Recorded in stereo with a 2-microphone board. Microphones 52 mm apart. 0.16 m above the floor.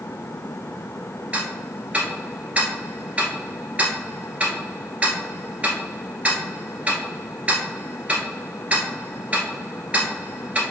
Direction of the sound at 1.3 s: 25° right (ahead or behind).